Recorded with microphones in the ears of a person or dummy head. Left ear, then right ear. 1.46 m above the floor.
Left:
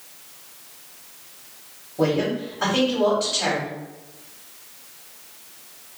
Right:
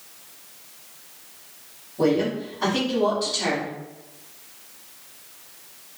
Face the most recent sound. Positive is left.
turn(degrees=40)  # may be behind; listen again after turning